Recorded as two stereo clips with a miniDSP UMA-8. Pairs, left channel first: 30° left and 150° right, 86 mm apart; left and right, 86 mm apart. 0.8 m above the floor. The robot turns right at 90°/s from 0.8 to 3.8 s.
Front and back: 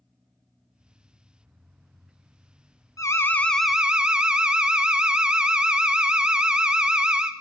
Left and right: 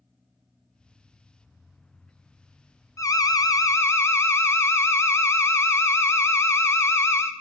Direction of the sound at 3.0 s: 60° left.